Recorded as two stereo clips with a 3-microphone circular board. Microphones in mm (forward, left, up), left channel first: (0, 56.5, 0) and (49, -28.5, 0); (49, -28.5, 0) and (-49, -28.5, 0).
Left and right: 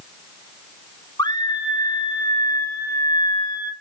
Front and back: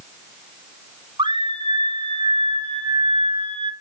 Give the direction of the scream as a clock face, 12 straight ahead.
7 o'clock.